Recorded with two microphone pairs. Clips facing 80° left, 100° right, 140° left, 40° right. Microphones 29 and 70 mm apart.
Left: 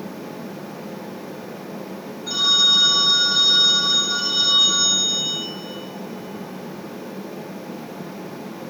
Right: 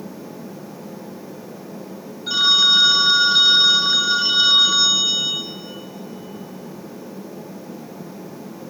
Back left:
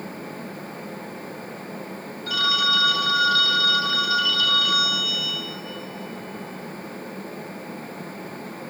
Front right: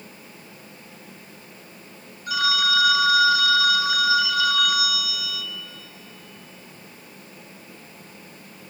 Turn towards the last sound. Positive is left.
turn(degrees=-105)